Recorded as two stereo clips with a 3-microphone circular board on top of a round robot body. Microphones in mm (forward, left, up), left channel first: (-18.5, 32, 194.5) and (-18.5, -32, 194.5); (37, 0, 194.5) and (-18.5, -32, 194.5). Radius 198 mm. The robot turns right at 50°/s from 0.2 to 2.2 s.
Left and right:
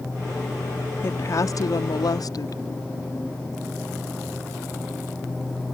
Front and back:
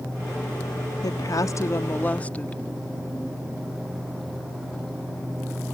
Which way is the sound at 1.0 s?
40° left.